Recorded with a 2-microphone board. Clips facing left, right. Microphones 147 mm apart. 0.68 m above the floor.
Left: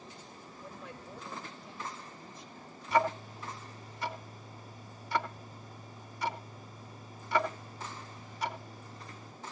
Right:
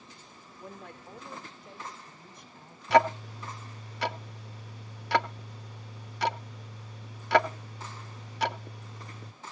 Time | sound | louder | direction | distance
0.6 | a woman speaking | right 2 dB | 60° right (ahead or behind) | 2.5 m
2.9 | ticking | right 6 dB | 80° right | 0.7 m